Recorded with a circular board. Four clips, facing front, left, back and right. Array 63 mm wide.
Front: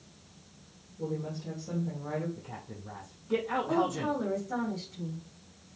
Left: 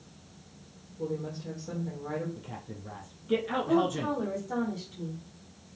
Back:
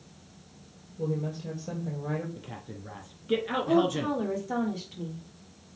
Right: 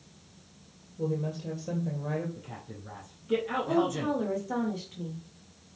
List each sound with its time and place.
1.0 s a woman speaking: 130° right, 2.5 m
2.4 s a man speaking: 175° left, 3 m
3.7 s a woman speaking: 155° right, 3 m